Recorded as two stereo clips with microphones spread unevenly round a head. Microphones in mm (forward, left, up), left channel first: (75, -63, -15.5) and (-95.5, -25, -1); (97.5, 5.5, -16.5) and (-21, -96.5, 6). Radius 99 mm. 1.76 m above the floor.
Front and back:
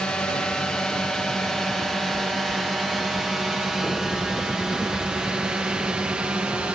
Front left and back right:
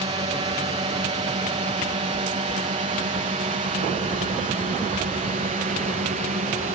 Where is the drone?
95° right; by 6.8 s 110° right.